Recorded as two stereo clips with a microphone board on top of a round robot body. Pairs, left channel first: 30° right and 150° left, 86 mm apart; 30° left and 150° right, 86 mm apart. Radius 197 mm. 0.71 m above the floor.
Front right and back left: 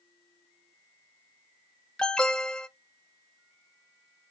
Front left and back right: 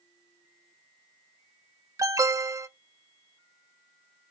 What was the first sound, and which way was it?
An alarm, 110° right.